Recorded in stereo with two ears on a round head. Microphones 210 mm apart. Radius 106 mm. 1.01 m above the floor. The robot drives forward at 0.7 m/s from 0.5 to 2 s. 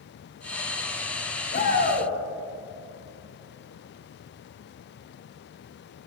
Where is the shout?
45° left (ahead or behind), 2.5 m; by 2.1 s 40° left (ahead or behind), 3 m.